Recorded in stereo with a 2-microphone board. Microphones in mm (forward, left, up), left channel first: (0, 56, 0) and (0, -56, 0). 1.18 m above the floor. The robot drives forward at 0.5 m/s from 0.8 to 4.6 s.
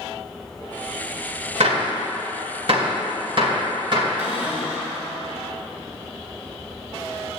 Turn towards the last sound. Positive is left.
turn(degrees=-15)  # may be behind; listen again after turning